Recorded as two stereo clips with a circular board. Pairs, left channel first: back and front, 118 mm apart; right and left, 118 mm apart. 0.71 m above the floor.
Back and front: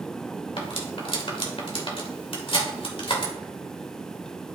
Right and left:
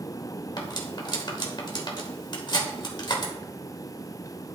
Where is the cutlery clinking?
140° right, 1.5 m.